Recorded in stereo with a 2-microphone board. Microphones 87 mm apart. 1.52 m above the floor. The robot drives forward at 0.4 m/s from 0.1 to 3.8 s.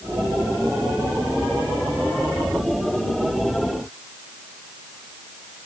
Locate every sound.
Only background noise.